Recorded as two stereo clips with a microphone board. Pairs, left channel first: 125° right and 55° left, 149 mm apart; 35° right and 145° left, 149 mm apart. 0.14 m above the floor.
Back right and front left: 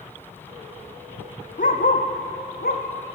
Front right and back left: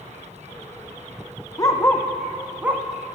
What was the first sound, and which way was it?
A dog barking, 100° right.